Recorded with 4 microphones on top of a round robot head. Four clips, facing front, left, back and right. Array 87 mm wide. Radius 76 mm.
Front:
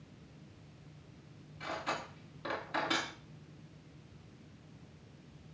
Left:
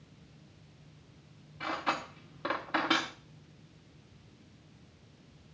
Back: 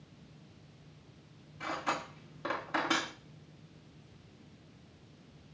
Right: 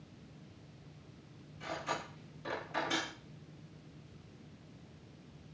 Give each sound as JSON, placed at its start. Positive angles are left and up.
{"t": 1.6, "sound": "cutlery clinking", "azimuth_deg": 120, "distance_m": 3.5}